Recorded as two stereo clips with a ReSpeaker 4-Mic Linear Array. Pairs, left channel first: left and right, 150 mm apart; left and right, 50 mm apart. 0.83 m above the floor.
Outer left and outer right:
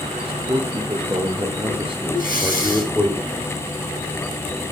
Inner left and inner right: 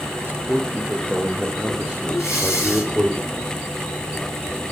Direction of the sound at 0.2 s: 35° right (ahead or behind).